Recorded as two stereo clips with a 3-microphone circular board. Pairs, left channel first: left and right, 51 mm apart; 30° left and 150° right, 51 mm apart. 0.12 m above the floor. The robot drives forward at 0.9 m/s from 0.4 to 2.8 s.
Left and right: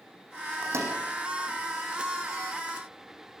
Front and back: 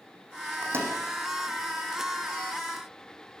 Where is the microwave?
115° right, 4.5 m.